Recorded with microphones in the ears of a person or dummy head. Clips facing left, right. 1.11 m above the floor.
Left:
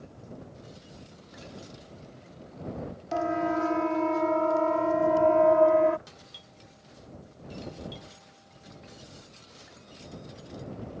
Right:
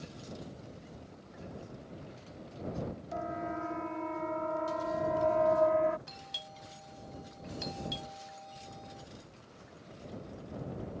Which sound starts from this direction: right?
A doorbell, at 6.1 s.